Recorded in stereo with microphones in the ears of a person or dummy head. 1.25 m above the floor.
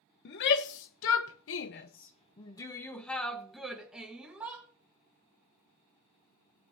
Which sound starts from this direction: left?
A shout, at 0.2 s.